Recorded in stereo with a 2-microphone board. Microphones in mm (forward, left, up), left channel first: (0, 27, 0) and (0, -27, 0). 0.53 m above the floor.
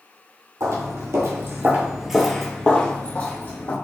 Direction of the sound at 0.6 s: 70° right (ahead or behind).